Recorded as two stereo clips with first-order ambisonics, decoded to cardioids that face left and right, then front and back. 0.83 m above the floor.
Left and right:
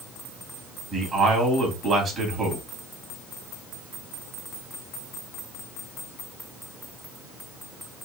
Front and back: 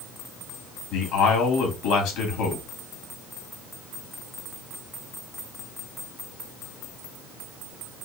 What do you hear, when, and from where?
0.9 s a man speaking: 35° right, 1.6 m